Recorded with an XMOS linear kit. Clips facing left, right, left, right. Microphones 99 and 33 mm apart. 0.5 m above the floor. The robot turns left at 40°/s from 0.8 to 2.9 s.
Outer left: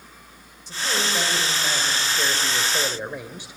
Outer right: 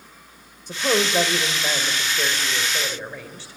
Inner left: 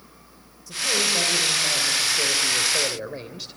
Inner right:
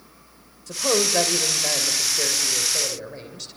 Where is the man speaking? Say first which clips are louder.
Outer right 5 dB, inner right 1 dB; 110° right, 2 m; by 3.5 s 165° left, 2 m.